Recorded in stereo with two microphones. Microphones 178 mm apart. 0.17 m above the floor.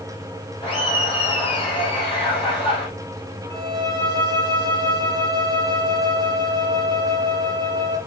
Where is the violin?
15° left (ahead or behind), 4 m.